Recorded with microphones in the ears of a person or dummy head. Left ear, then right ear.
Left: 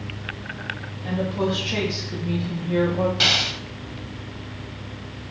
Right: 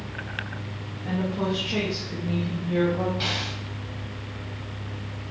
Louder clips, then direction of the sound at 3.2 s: Left 9 dB; 30° left (ahead or behind).